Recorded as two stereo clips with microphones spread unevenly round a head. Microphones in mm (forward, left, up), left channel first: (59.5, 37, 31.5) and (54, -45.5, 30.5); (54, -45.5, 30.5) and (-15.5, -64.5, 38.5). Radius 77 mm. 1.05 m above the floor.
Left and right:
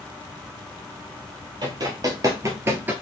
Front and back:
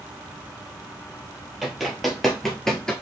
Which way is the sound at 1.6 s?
85° right.